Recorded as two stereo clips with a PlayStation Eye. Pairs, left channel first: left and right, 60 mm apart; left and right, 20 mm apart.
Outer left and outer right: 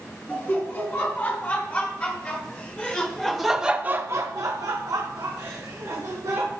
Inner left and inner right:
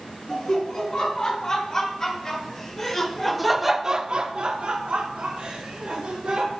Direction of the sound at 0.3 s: 40° left (ahead or behind).